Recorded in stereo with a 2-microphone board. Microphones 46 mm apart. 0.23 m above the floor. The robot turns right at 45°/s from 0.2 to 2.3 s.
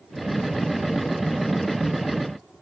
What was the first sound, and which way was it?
Only background noise.